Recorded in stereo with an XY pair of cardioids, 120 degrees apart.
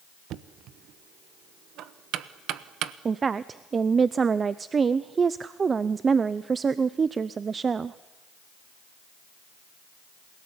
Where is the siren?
I don't hear a siren.